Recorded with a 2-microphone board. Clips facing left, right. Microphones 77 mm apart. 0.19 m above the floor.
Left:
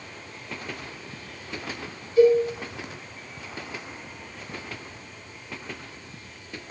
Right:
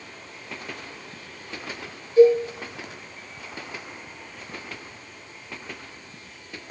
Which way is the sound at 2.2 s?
25° right (ahead or behind).